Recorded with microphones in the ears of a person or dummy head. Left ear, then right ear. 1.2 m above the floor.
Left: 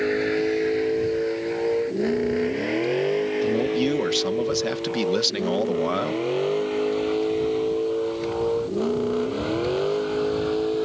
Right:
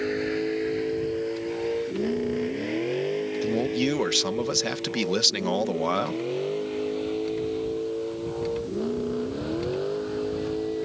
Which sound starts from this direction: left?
A vehicle, at 0.0 s.